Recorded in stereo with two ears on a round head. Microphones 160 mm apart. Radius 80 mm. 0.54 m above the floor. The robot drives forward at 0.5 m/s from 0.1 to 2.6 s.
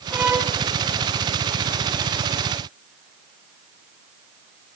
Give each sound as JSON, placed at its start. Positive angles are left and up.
{"t": 0.1, "sound": "a violin", "side_deg": -10, "distance_m": 1.1}